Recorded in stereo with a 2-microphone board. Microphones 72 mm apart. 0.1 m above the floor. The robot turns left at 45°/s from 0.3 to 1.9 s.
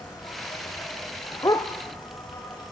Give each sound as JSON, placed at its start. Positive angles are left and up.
{"t": 0.0, "sound": "an insect", "azimuth_deg": 125, "distance_m": 7.0}
{"t": 1.4, "sound": "a dog barking", "side_deg": 55, "distance_m": 1.1}